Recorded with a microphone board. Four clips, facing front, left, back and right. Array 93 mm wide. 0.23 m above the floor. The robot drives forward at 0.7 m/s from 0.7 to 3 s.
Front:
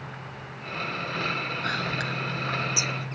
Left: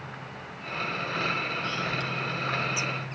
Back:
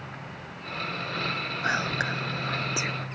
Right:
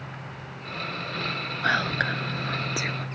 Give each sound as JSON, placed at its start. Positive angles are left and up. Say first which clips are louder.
{"t": 1.6, "sound": "whispering", "louder": "right 6 dB, back 5 dB", "azimuth_deg": -110}